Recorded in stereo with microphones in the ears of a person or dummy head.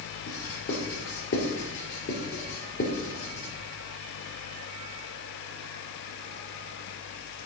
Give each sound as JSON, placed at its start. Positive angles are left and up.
{"t": 0.3, "sound": "writing", "side_deg": 70, "distance_m": 3.5}